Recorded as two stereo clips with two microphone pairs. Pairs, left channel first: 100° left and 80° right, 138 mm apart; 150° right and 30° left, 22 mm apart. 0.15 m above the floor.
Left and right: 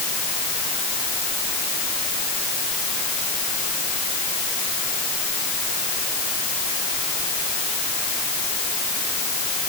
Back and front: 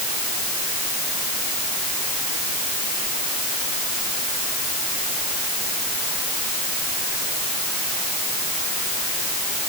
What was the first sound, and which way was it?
Only background noise.